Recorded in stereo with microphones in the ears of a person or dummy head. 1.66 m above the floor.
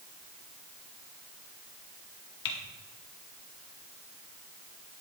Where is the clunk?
No clunk in this recording.